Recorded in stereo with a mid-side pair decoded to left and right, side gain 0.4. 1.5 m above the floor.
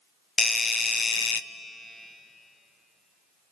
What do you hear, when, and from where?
0.4 s a doorbell: 35° left, 0.8 m